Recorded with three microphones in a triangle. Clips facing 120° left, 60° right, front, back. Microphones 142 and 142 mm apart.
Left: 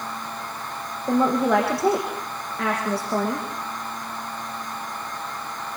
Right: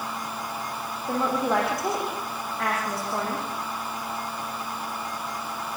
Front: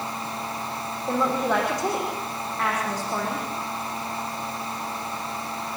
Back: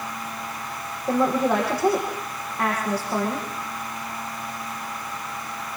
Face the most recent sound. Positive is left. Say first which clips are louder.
# left 5 dB, back 3 dB
turn(degrees=100)